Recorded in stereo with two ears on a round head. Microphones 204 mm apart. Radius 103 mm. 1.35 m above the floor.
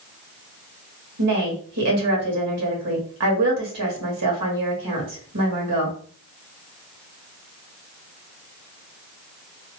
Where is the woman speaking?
80° right, 1.5 m.